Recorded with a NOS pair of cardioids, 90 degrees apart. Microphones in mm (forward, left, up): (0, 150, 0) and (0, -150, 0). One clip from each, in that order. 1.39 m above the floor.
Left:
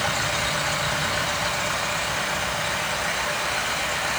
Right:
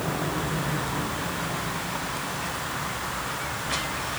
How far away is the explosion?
No explosion in this recording.